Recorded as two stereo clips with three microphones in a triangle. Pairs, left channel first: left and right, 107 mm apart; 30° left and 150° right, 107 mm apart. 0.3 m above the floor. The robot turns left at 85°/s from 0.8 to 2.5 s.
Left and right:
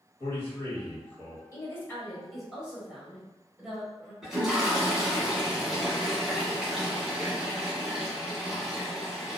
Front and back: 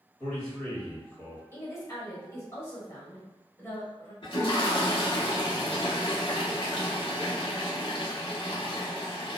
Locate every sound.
0.2 s a man speaking: 95° left, 1.2 m; by 1.4 s 45° left, 1.2 m
1.5 s a woman speaking: 70° left, 1.0 m; by 4.1 s 15° right, 1.0 m
4.2 s a toilet flushing: 5° right, 0.9 m